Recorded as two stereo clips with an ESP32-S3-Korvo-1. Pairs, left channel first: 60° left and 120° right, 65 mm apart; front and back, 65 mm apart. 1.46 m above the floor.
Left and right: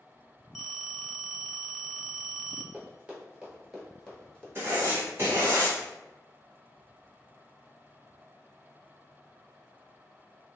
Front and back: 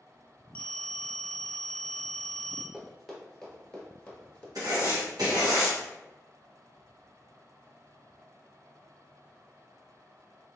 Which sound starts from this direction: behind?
Writing, at 4.5 s.